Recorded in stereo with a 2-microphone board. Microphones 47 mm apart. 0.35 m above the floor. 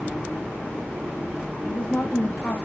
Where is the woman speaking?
55° left (ahead or behind), 1.8 m.